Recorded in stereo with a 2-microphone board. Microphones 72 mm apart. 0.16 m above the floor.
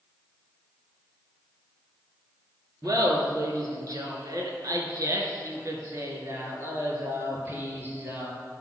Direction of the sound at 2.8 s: 60° right (ahead or behind).